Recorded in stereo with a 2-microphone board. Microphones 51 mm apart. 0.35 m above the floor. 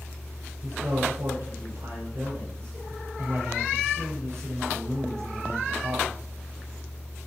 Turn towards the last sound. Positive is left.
turn(degrees=-60)  # may be behind; listen again after turning